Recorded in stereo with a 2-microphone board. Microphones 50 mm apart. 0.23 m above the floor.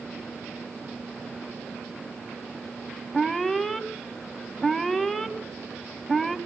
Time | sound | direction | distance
3.1 | an alarm | 5° left (ahead or behind) | 0.9 m